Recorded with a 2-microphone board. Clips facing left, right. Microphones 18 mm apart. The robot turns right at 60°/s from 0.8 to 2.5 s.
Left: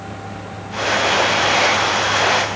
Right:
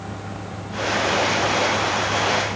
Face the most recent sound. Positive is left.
No sound to turn to.